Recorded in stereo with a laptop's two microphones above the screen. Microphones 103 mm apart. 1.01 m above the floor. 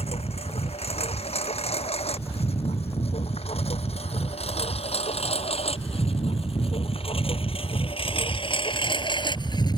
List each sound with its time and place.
0.0 s a lawn mower: 85° left; by 9.8 s 45° left (ahead or behind)